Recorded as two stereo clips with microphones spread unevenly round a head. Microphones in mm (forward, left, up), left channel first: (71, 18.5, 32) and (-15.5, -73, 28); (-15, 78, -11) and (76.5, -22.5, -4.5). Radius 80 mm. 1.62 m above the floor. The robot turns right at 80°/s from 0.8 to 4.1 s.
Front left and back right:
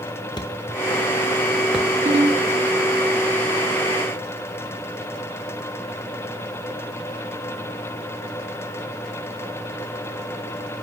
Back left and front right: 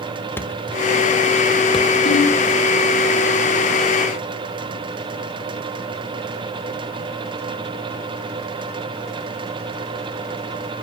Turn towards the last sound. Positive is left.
turn(degrees=-40)